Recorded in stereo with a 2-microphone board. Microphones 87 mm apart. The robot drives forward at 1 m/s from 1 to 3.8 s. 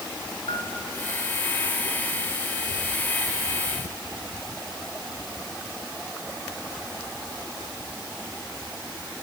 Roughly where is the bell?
Left.